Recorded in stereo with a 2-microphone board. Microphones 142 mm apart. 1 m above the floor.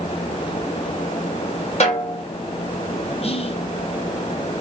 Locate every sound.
1.8 s a snare drum: 45° left (ahead or behind), 2 m
3.2 s whispering: 45° left (ahead or behind), 0.5 m